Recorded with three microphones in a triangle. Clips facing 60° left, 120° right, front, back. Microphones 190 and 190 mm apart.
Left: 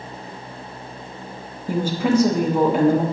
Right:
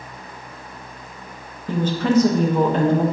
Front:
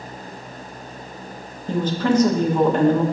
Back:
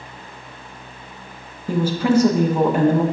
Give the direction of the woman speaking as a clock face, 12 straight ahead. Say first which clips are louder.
Even, back 2 dB; 8 o'clock.